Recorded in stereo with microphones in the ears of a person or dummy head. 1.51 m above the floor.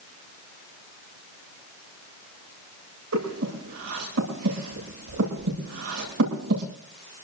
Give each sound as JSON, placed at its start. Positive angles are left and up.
{"t": 3.1, "sound": "breathing", "side_deg": -75, "distance_m": 8.5}